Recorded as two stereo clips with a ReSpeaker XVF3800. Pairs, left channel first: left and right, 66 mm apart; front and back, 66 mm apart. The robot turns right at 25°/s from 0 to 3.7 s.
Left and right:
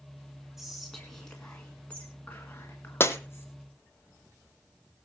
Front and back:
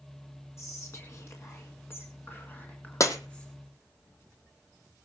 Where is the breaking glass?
35° left, 1.2 m; by 3.2 s 40° left, 1.2 m.